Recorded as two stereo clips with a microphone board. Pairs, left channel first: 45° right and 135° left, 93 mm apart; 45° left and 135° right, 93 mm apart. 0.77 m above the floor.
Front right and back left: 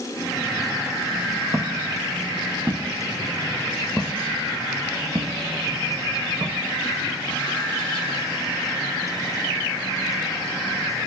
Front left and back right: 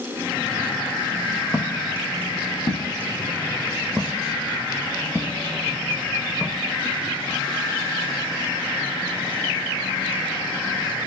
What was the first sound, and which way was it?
Footsteps, 95° left.